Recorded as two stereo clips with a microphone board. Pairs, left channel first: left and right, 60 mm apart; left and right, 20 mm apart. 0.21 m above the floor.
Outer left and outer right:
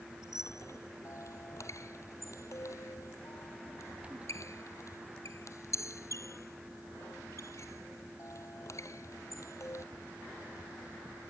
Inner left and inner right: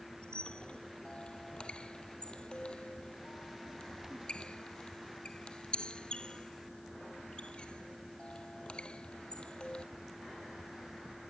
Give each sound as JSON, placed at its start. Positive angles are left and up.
{"t": 0.2, "sound": "a squeak", "side_deg": 60}